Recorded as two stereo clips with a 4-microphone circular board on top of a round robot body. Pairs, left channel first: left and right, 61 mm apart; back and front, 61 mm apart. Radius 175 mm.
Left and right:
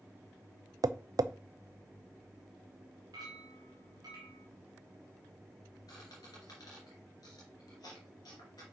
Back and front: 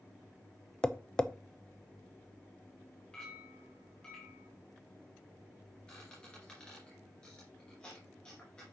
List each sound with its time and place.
0.8 s tapping: 100° right, 0.6 m
3.1 s a clink: 105° right, 0.6 m
5.9 s a squeak: 105° left, 2 m